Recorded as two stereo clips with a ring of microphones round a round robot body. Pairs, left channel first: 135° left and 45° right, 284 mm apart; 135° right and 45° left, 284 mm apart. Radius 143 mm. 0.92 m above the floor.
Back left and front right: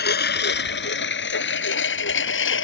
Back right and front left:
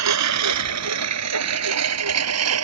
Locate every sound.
0.0 s a lawn mower: 80° left; by 2.6 s 85° left